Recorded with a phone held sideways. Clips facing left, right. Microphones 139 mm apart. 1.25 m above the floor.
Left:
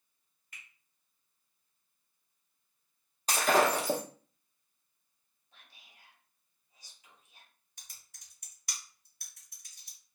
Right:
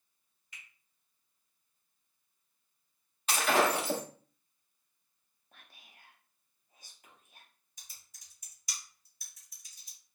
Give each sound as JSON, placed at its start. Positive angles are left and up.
{"t": 0.5, "sound": "a finger snap", "side_deg": 50, "distance_m": 1.2}
{"t": 3.3, "sound": "breaking glass", "side_deg": 40, "distance_m": 0.9}
{"t": 5.5, "sound": "whispering", "side_deg": -50, "distance_m": 0.8}
{"t": 7.8, "sound": "typing on a keyboard", "side_deg": 65, "distance_m": 1.7}